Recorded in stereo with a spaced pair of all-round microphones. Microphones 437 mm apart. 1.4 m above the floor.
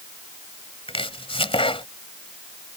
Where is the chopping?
10° left (ahead or behind).